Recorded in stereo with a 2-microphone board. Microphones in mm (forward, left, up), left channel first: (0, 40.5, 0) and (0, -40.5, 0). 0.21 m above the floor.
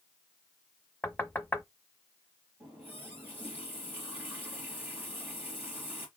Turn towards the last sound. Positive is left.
turn(degrees=-25)  # may be behind; listen again after turning